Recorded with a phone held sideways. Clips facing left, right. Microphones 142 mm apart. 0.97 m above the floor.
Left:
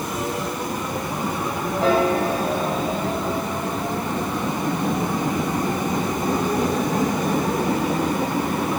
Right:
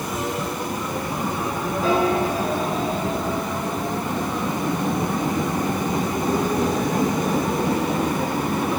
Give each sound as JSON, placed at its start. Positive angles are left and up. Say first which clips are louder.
{"t": 1.8, "sound": "a piano", "louder": "left 1 dB", "side_deg": 80, "distance_m": 8.5}